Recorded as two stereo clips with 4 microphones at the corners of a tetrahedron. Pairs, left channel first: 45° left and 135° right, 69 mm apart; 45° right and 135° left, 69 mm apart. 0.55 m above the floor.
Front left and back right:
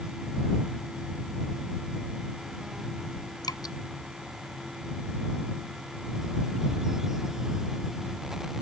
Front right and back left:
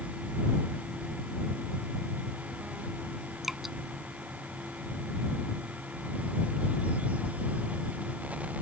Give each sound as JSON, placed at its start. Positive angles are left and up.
{"t": 3.4, "sound": "dripping", "azimuth_deg": 50}